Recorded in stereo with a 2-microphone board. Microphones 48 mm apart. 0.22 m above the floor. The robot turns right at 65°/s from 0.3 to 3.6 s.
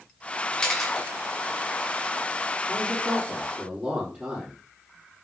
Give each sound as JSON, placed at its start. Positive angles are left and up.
{"t": 0.5, "sound": "a camera shutter", "side_deg": 20, "distance_m": 2.0}
{"t": 2.7, "sound": "a man speaking", "azimuth_deg": 150, "distance_m": 5.5}